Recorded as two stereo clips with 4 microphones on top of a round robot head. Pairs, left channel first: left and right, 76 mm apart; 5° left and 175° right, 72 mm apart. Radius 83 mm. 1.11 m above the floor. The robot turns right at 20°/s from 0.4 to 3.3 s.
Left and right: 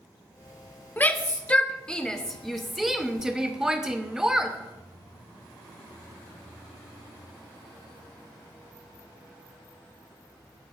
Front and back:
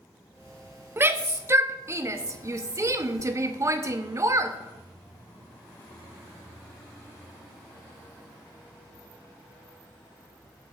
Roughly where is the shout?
Behind left.